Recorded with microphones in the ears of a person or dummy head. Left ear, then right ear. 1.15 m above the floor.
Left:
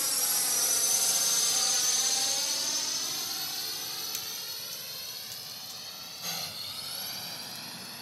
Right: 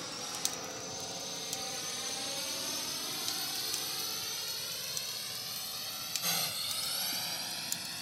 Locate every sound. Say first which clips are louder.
0.0 s a drone: left 7 dB; 55° left (ahead or behind); by 8.0 s 5° right (ahead or behind)